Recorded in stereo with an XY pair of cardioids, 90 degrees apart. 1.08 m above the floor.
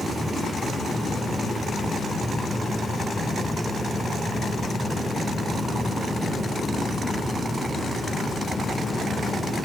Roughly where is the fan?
Ahead.